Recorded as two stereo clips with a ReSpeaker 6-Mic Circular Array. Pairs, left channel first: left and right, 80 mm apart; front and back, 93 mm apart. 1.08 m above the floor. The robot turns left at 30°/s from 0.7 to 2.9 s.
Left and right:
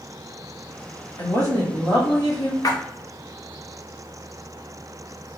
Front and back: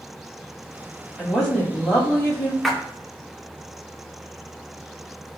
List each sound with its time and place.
1.2 s a woman speaking: 85° left, 1.7 m; by 2.5 s 45° left, 1.7 m
2.6 s a splash: 90° left, 0.6 m; by 2.8 s 85° left, 0.6 m